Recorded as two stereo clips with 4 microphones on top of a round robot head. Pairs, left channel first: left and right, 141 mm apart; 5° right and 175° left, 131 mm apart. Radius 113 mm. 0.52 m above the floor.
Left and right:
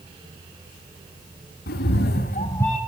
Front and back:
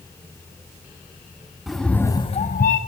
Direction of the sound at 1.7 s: 90° left.